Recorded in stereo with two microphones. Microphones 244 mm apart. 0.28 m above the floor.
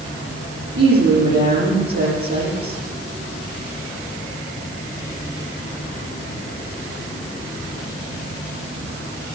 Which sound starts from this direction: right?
A woman speaking, at 0.8 s.